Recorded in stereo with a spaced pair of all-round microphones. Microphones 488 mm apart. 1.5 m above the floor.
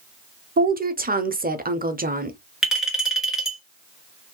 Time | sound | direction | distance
0.6 | a woman speaking | 20° right (ahead or behind) | 0.6 m
2.6 | a clink | centre (ahead or behind) | 1.5 m